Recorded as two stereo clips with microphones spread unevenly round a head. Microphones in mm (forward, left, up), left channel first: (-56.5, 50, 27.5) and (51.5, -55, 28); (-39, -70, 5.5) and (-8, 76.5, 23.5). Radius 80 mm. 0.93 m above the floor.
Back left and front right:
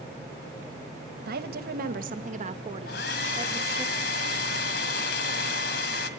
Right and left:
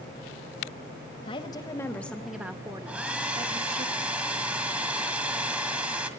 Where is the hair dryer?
155° left, 1.7 m.